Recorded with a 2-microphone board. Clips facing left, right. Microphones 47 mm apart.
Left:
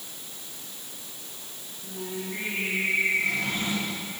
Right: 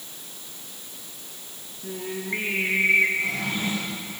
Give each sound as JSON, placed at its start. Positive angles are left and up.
{"t": 1.8, "sound": "singing", "side_deg": -60, "distance_m": 4.0}
{"t": 3.2, "sound": "a drawer", "side_deg": -20, "distance_m": 8.0}